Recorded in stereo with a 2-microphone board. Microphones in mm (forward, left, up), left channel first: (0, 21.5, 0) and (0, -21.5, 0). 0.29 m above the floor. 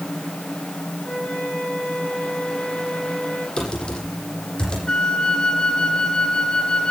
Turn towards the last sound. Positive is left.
turn(degrees=15)  # may be behind; listen again after turning